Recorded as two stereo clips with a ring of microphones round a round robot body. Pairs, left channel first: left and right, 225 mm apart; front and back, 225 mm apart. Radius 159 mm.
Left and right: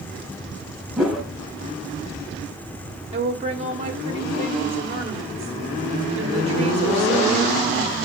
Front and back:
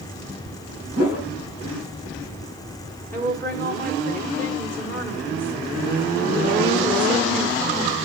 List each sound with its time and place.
1.0 s a whoosh: straight ahead, 4 m
3.1 s a woman speaking: 75° right, 1.3 m